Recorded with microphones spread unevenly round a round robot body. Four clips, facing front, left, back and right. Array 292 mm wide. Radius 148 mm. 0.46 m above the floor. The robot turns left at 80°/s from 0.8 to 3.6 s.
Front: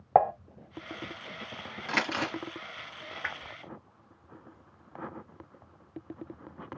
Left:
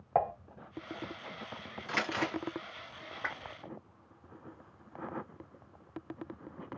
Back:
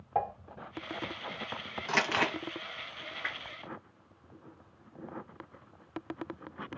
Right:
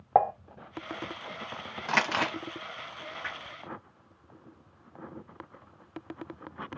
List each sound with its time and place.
0.1 s dishes clattering: 40° right, 0.7 m
1.9 s crumpling: 85° right, 1.2 m; by 2.3 s 125° right, 1.2 m
3.2 s a whoosh: 50° left, 0.6 m; by 3.5 s 30° left, 0.6 m